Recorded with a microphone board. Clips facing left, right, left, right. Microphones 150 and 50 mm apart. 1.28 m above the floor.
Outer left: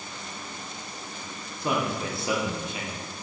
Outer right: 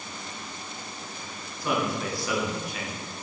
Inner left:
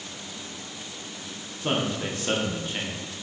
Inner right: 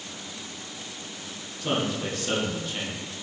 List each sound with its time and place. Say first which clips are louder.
1.6 s a man speaking: even, even; 25° left (ahead or behind), 0.9 m